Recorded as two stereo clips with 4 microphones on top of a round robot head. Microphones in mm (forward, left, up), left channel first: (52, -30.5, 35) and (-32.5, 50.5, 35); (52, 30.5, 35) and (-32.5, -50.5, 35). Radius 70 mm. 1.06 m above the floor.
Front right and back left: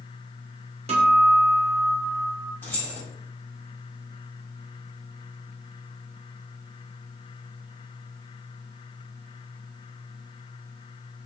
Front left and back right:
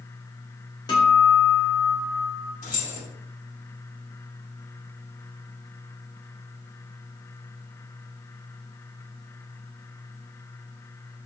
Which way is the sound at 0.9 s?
100° left.